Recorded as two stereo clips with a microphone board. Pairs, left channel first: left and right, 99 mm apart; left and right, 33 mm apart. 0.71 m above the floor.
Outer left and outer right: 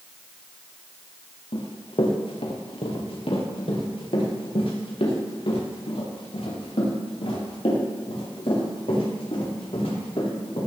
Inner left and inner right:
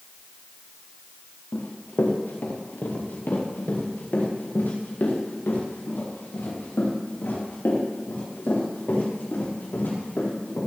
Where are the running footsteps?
60° left (ahead or behind), 3 m; by 10.6 s 70° left (ahead or behind), 9.5 m.